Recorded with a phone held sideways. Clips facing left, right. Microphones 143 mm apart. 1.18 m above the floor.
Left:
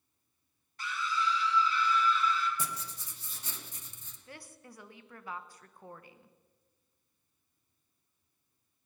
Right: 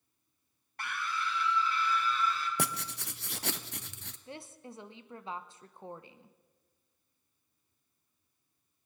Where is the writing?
75° right (ahead or behind), 0.6 m.